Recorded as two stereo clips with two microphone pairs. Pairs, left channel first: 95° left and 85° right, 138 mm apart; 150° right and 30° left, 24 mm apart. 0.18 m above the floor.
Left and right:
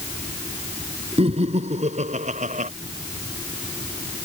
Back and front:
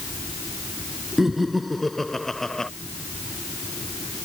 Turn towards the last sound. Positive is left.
turn(degrees=-85)